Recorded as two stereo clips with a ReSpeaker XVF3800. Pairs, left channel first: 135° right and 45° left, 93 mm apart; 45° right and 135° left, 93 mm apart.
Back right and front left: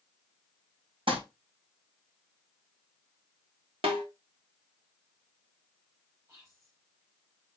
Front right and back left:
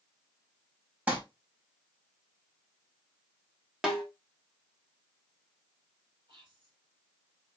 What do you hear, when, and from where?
1.1 s crumpling: 65° left, 4 m
3.8 s a snare drum: 55° left, 2.5 m
6.3 s whispering: 100° left, 4 m